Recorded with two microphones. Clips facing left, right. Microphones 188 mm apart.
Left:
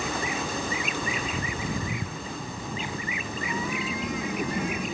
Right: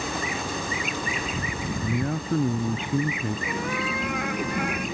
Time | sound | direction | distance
1.8 | a man speaking | 65° right (ahead or behind) | ?
3.5 | a cat meowing | 65° right (ahead or behind) | ?